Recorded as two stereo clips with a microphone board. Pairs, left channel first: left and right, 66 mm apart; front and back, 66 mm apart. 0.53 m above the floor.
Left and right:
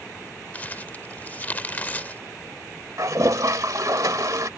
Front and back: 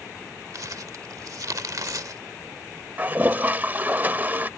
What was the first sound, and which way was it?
Crumpling, 155° left.